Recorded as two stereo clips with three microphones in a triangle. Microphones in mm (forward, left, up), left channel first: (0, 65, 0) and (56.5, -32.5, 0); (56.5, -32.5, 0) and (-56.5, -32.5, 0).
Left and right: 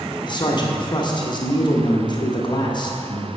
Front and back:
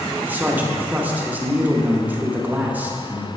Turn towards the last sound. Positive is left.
turn(degrees=110)